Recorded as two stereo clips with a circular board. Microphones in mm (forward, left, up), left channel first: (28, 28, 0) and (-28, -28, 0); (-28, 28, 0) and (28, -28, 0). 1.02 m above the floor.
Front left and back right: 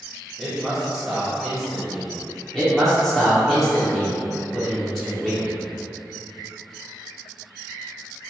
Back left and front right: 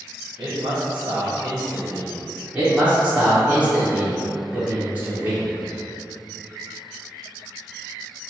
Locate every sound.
0.4 s a man speaking: 60° right, 0.7 m
2.5 s a man speaking: 45° right, 0.7 m